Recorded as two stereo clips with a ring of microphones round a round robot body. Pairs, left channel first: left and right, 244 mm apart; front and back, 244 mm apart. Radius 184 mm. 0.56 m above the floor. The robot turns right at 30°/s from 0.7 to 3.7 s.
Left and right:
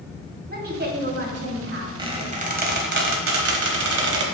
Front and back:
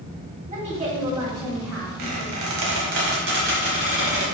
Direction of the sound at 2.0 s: 165° right.